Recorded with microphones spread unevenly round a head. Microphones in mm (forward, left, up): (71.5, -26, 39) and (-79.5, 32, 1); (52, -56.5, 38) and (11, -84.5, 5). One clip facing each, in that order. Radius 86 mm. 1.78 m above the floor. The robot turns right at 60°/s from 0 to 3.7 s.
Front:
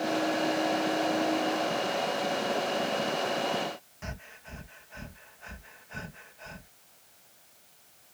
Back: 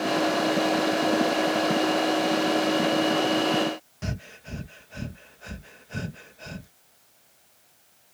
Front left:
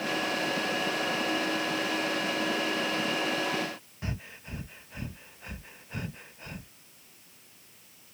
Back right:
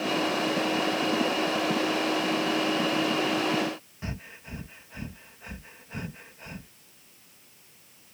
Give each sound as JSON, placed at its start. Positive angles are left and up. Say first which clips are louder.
{"t": 4.0, "sound": "breathing", "louder": "back 8 dB, front left 2 dB", "azimuth_deg": 110}